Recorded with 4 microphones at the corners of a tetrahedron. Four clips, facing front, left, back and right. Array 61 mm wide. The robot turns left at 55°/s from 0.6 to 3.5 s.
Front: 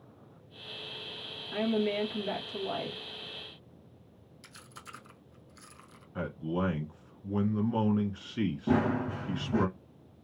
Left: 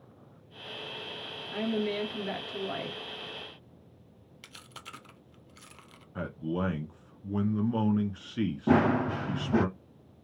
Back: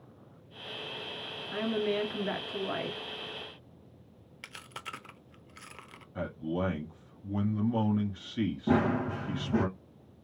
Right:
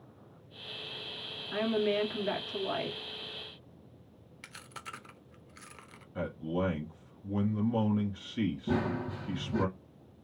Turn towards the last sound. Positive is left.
turn(degrees=95)